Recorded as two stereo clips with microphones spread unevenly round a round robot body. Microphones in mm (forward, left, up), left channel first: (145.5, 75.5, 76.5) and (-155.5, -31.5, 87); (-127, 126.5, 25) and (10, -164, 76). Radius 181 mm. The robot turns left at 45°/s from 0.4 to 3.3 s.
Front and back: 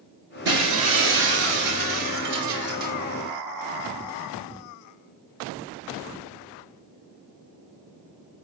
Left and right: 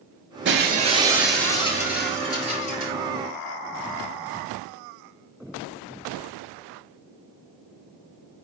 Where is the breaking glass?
115° right, 4 m; by 2.9 s 135° left, 4 m.